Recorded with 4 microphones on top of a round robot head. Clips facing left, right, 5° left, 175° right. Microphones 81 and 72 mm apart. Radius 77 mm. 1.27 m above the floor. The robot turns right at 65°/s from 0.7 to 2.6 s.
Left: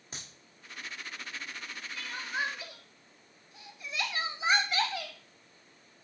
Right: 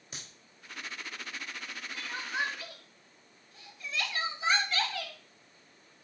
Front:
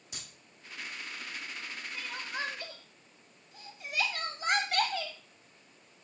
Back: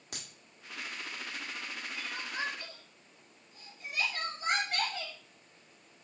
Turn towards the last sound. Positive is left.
turn(degrees=15)